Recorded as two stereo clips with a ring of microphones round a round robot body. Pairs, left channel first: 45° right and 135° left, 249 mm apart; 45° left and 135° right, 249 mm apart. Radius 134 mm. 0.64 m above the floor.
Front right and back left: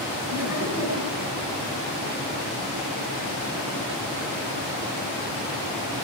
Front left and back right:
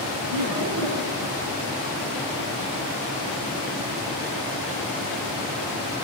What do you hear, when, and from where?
0.3 s laughter: 145° right, 9.5 m